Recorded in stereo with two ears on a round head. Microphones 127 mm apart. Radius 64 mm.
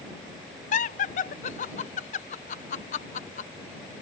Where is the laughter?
55° left (ahead or behind).